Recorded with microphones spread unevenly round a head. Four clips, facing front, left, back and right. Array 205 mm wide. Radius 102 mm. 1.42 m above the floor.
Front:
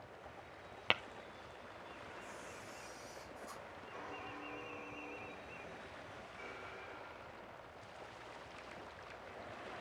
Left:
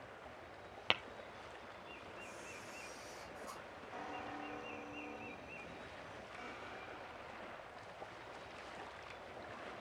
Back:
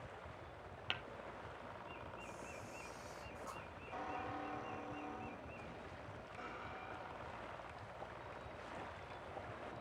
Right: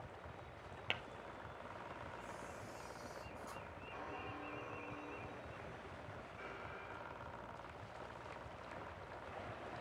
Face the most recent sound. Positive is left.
turn(degrees=165)